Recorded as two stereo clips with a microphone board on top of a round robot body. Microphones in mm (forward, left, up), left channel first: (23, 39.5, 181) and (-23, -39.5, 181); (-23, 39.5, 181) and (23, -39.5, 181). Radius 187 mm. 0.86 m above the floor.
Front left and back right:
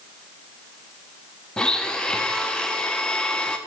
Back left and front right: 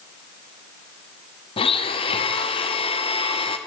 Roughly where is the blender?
Behind left.